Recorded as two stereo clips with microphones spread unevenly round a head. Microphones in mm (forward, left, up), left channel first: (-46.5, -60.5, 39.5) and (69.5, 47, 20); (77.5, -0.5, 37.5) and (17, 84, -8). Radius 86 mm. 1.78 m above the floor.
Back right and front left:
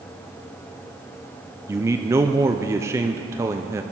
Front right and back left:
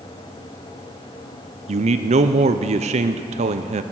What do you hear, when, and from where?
1.7 s a man speaking: 115° left, 0.6 m